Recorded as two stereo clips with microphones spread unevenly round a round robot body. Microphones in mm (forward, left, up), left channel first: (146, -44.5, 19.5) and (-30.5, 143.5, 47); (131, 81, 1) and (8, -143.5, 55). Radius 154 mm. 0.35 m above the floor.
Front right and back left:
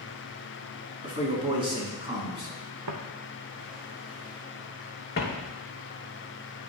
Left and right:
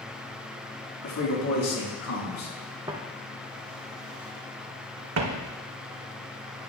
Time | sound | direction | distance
1.0 | a man speaking | 60° left | 3.5 m
2.9 | footsteps | 165° left | 1.1 m